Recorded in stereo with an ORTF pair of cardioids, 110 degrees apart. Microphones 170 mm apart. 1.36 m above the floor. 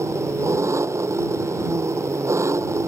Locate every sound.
0.0 s an engine running: 15° right